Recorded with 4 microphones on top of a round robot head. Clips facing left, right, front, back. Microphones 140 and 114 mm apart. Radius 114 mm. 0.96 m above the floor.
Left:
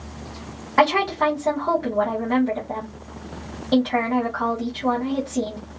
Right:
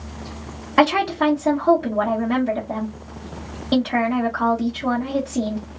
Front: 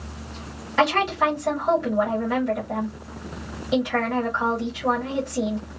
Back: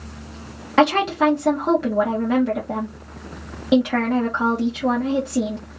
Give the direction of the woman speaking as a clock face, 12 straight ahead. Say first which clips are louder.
Right 2 dB, back 4 dB; 5 o'clock.